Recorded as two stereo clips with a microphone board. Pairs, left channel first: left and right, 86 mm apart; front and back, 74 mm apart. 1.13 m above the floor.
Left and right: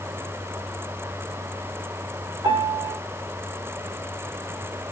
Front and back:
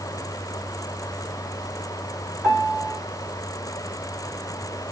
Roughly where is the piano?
Behind right.